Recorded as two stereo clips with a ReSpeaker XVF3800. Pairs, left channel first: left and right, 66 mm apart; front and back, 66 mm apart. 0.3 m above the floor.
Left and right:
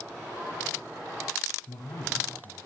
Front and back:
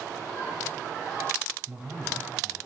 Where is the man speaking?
105° left, 6 m.